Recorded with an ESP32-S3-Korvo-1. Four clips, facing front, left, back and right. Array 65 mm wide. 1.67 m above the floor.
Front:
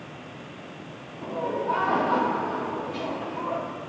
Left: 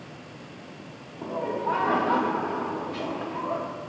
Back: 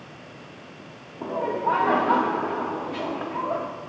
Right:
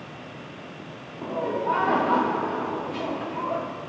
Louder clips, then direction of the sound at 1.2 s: Right 2 dB, back 3 dB; straight behind.